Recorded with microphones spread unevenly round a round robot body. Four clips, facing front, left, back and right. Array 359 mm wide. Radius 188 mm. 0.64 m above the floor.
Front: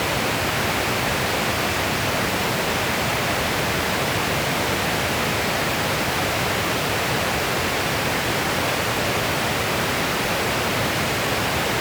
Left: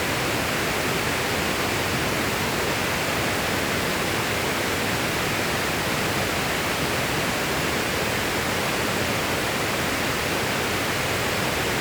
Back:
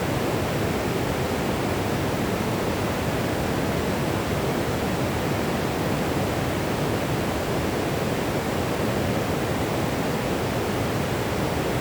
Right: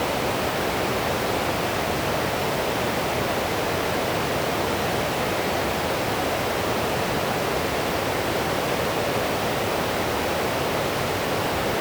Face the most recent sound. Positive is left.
No sound to turn to.